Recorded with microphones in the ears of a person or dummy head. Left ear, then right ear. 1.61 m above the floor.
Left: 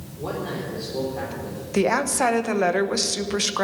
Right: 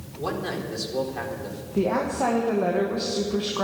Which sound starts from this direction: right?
A man speaking, at 0.2 s.